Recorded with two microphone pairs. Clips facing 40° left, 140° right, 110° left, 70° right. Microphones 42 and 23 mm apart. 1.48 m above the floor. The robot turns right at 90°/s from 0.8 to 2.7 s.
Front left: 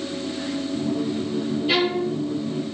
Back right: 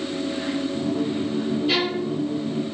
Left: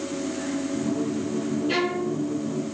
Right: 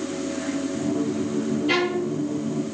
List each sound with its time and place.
1.7 s a violin: 45° right, 2.0 m; by 2.2 s straight ahead, 2.0 m